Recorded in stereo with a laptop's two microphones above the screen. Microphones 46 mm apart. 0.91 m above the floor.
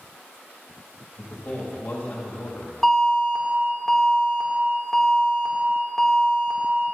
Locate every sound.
1.2 s a man speaking: 45° left (ahead or behind), 1.7 m
2.8 s an alarm: 5° left (ahead or behind), 2.5 m